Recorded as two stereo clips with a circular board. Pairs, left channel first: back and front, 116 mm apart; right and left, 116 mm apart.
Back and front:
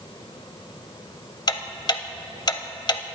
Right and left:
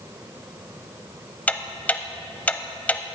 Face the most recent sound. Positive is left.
turn(degrees=-160)